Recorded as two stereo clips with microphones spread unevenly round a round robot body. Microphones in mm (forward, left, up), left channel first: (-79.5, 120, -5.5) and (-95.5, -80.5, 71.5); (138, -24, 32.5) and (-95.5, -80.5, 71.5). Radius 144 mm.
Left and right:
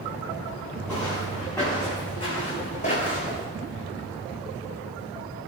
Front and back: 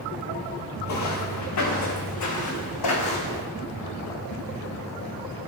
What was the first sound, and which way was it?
Footsteps, 5° right.